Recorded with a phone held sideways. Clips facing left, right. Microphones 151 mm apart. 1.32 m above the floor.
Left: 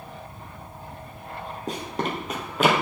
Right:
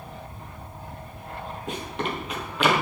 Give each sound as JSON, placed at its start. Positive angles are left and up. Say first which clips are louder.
{"t": 1.7, "sound": "running footsteps", "louder": "left 2 dB", "side_deg": 40, "distance_m": 1.8}